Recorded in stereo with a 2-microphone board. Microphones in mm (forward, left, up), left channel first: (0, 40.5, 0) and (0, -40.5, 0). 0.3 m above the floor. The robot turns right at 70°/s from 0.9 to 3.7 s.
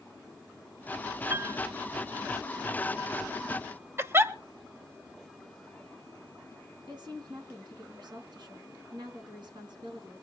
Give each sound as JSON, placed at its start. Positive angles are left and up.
{"t": 1.3, "sound": "a piano", "side_deg": -20, "distance_m": 1.4}
{"t": 4.0, "sound": "a giggle", "side_deg": -30, "distance_m": 0.9}
{"t": 6.9, "sound": "a woman speaking", "side_deg": -70, "distance_m": 3.5}